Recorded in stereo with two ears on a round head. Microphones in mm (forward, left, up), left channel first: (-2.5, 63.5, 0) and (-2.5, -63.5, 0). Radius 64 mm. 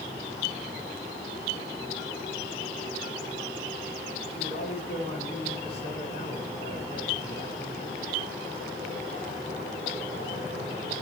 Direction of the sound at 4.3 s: 45° left (ahead or behind).